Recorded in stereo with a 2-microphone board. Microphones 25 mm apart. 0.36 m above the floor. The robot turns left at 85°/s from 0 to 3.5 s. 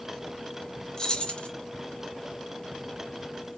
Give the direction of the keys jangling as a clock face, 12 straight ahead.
7 o'clock.